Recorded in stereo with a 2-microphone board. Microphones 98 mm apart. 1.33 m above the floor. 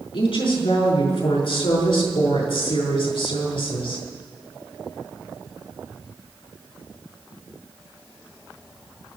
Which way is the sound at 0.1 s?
60° left (ahead or behind).